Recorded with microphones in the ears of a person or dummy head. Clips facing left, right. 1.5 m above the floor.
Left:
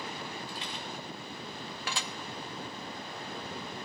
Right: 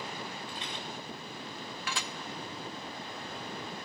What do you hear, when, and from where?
0.5 s a rattle: 40° left (ahead or behind), 3.5 m
1.9 s dishes clattering: 30° left (ahead or behind), 0.7 m